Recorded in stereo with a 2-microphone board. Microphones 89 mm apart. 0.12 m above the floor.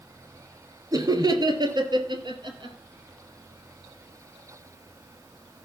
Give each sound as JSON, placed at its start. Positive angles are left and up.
{"t": 0.9, "sound": "laughter", "side_deg": -40, "distance_m": 2.5}